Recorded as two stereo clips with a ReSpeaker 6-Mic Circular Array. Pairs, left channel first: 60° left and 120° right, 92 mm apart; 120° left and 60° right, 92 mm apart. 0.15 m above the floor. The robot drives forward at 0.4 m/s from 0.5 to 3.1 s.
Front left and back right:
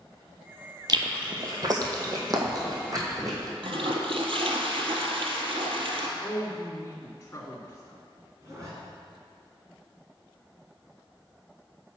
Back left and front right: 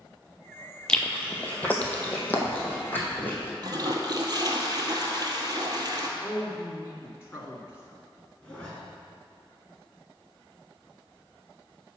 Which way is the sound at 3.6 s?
105° right.